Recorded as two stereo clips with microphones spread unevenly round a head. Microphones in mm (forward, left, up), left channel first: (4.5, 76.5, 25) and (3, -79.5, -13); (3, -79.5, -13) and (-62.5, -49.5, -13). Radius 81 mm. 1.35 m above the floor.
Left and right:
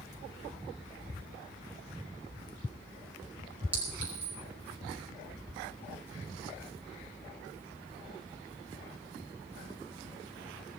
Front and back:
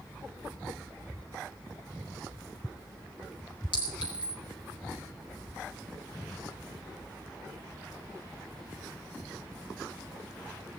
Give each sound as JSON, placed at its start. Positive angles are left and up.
{"t": 3.7, "sound": "a clink", "azimuth_deg": -10, "distance_m": 5.0}